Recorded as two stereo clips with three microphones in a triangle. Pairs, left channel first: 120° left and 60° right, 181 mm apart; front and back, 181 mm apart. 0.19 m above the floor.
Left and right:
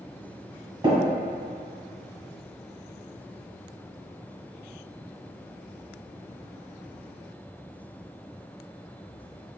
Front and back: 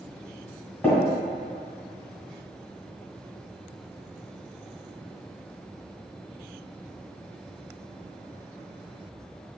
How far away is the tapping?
About 1.2 m.